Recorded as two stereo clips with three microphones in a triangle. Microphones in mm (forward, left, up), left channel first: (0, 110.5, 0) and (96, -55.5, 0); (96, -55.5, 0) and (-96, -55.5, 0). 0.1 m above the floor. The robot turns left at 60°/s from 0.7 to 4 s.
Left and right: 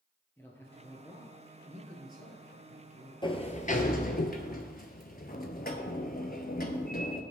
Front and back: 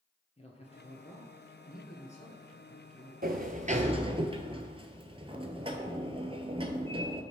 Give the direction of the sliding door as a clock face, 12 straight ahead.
6 o'clock.